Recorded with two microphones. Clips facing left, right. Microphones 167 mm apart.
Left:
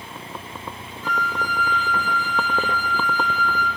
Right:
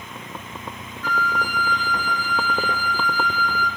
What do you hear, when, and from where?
1.0 s a flute: 25° left (ahead or behind), 1.8 m